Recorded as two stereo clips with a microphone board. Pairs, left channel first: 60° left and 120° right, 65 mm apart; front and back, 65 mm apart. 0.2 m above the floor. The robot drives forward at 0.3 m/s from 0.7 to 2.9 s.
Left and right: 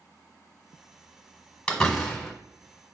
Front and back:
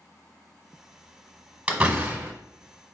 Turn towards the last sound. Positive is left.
turn(degrees=145)